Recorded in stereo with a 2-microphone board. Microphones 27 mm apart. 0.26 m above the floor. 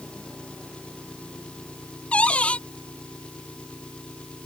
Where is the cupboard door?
45° left (ahead or behind).